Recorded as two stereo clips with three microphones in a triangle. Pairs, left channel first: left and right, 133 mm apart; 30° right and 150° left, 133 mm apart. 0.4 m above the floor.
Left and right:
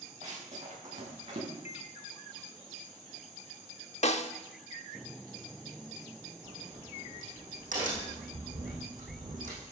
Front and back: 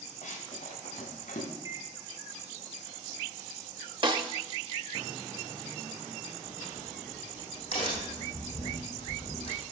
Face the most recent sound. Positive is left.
turn(degrees=-80)